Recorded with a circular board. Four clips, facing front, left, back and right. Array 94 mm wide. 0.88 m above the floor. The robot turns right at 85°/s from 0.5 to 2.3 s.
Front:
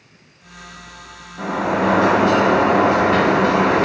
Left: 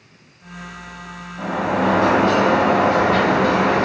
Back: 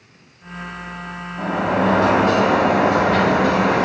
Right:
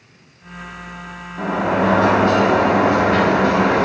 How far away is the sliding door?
About 1.1 m.